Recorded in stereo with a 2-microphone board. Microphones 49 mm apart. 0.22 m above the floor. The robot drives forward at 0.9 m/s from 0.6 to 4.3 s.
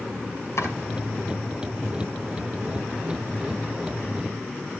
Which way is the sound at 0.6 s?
70° left (ahead or behind).